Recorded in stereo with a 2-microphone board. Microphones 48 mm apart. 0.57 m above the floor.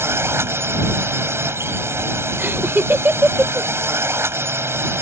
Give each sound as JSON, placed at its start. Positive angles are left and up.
{"t": 0.0, "sound": "a drone", "side_deg": -60}
{"t": 2.4, "sound": "laughter", "side_deg": -45}